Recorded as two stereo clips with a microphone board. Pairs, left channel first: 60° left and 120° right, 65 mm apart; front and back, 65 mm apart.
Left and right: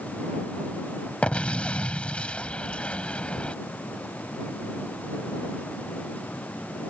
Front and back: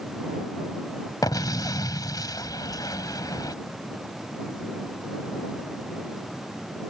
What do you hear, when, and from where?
1.2 s an explosion: 10° right